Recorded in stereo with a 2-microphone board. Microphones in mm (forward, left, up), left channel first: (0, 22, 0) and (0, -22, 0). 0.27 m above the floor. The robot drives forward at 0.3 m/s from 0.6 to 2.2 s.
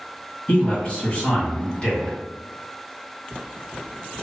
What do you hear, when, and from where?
0.5 s a man speaking: 35° left (ahead or behind), 1.4 m; by 2.2 s 30° left (ahead or behind), 1.6 m